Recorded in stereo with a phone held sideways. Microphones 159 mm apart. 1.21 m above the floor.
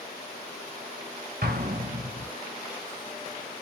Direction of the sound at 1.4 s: 75° right (ahead or behind).